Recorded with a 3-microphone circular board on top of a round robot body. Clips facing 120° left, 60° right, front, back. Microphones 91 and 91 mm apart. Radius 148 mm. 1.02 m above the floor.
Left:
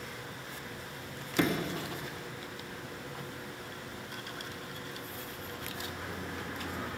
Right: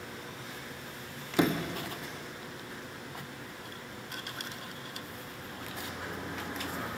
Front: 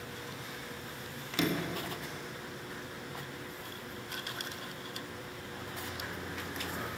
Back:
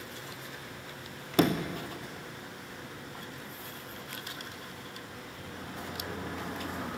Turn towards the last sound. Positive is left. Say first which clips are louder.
# right 2 dB, back 6 dB
turn(degrees=-135)